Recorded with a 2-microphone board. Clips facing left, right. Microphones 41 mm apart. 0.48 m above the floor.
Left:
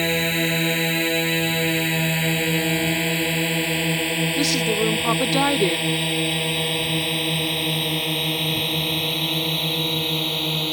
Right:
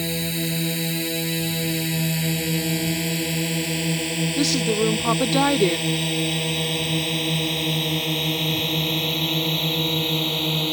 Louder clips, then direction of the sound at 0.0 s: Left 6 dB; 40° left (ahead or behind).